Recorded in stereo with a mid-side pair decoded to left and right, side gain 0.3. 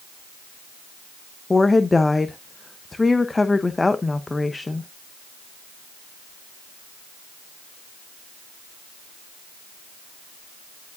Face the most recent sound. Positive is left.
turn(degrees=30)